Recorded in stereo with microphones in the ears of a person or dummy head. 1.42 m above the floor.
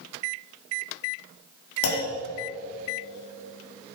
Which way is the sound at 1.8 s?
70° left (ahead or behind).